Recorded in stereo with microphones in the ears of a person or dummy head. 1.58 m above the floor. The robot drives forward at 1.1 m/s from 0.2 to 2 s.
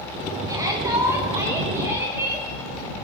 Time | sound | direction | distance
0.5 | a shout | 15° right (ahead or behind) | 4 m